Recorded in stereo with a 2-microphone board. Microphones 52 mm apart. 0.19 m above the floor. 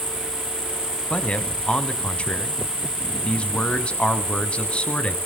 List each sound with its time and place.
0.0 s an insect: 35° right (ahead or behind), 1.8 m
1.1 s a man speaking: 20° left (ahead or behind), 1.2 m